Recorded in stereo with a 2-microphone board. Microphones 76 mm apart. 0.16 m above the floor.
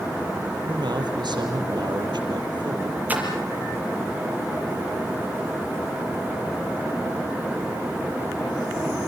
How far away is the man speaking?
About 4.5 m.